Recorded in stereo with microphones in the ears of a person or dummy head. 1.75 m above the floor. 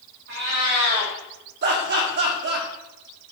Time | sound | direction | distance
0.3 | a cat meowing | 40° right (ahead or behind) | 1.5 m
1.6 | laughter | 55° right (ahead or behind) | 1.5 m